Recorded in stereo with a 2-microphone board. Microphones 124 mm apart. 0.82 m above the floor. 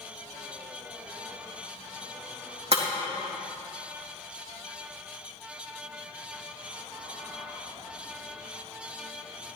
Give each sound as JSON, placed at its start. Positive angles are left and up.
{"t": 2.7, "sound": "breaking glass", "side_deg": -55, "distance_m": 3.5}